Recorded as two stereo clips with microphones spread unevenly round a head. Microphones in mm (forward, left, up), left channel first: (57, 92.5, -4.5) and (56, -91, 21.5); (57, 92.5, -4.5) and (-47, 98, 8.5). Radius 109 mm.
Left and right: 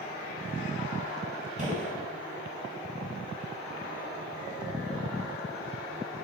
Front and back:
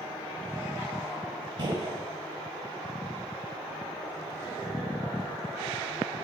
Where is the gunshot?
135° right, 1.7 m.